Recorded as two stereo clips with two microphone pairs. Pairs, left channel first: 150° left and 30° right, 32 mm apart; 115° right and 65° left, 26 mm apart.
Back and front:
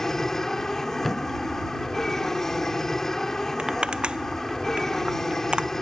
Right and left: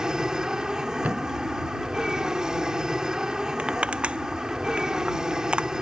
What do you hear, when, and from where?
0.0 s an aircraft: 85° left
1.0 s a thud: 65° left
3.6 s crushing: 25° left